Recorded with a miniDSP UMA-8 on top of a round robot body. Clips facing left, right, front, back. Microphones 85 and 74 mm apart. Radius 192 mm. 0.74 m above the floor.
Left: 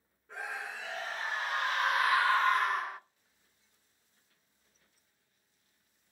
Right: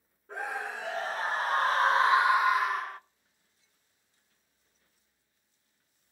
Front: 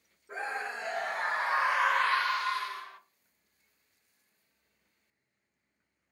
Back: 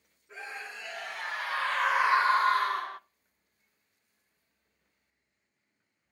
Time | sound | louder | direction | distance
0.3 | a scream | right 5 dB, front 6 dB | 35° right | 1.4 m